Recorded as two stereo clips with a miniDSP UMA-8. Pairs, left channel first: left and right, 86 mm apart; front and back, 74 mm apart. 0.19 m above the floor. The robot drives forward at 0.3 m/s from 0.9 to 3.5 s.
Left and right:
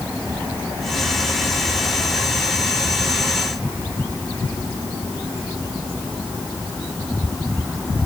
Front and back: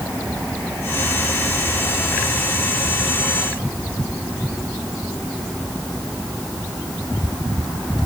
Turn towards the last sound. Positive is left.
No sound to turn to.